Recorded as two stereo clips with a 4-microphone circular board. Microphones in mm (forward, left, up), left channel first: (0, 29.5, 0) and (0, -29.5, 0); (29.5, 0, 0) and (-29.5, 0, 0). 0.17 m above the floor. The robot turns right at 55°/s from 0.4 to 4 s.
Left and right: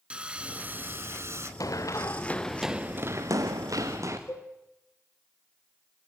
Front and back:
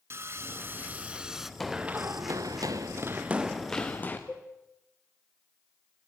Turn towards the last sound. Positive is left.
turn(degrees=65)